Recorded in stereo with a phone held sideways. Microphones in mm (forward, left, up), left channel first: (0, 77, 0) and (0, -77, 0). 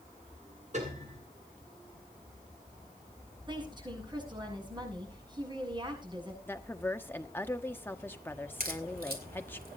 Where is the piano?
50° right (ahead or behind), 9.5 m.